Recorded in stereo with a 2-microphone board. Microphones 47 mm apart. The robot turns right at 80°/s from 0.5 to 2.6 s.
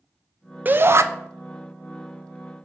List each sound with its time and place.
0.7 s a shout: 140° right, 0.6 m; by 1.0 s 110° right, 0.6 m